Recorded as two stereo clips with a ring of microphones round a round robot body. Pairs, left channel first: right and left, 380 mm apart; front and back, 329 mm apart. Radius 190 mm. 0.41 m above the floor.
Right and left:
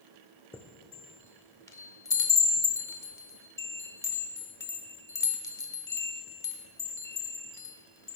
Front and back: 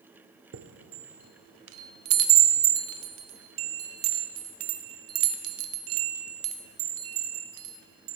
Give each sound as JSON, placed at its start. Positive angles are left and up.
{"t": 0.5, "sound": "a chime", "azimuth_deg": -170, "distance_m": 0.6}